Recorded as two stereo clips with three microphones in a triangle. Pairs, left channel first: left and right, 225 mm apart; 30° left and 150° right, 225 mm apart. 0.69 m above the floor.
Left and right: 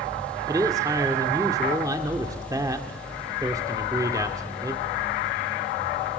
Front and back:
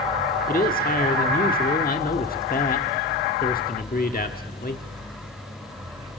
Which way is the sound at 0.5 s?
20° right.